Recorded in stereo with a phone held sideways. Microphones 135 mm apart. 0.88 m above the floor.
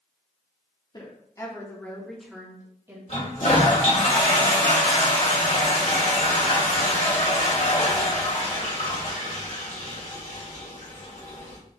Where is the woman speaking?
30° left (ahead or behind), 1.3 m; by 3.0 s 20° right (ahead or behind), 1.4 m.